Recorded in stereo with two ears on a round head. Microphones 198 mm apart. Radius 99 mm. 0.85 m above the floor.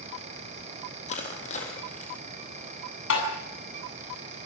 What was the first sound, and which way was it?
Crushing, 30° left (ahead or behind).